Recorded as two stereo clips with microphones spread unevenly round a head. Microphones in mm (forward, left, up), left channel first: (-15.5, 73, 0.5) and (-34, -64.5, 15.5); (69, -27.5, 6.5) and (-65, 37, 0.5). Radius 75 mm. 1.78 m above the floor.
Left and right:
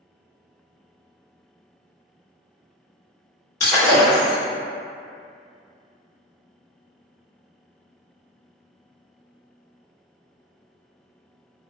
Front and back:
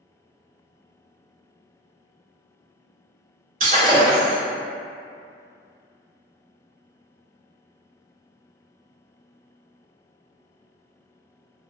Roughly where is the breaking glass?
Behind left.